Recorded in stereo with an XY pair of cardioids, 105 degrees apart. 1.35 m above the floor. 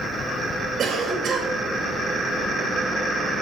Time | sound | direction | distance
0.8 | a cough | 65° right | 2.5 m